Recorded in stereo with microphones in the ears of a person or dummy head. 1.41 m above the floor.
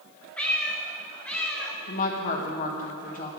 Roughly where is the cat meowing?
Centre.